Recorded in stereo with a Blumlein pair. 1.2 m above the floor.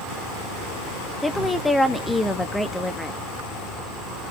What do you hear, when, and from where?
0.0 s an insect: 5° left, 2.5 m
1.2 s a woman speaking: 5° left, 1.4 m